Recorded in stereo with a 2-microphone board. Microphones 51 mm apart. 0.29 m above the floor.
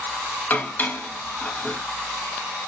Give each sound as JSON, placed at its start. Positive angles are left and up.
{"t": 0.5, "sound": "dishes clattering", "side_deg": 35, "distance_m": 1.0}